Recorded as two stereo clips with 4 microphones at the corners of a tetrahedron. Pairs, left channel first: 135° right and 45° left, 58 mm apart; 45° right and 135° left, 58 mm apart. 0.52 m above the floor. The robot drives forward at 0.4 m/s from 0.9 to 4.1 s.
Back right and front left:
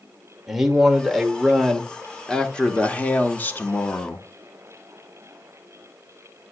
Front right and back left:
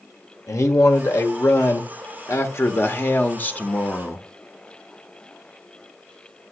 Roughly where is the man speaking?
Ahead right.